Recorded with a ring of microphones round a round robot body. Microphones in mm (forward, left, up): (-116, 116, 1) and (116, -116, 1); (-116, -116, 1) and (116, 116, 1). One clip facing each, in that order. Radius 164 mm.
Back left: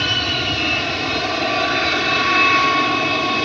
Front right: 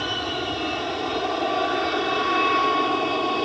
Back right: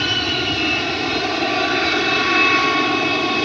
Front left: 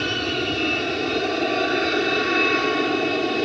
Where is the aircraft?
155° left; by 3.5 s 165° left.